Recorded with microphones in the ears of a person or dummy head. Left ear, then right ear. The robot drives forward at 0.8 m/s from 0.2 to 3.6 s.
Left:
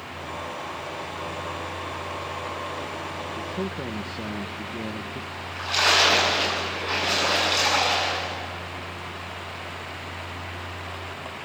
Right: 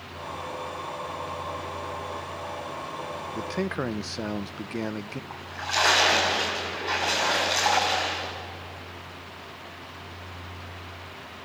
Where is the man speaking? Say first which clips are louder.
Right 1 dB; 70° right (ahead or behind), 0.5 m; by 5.2 s 60° right (ahead or behind), 0.6 m.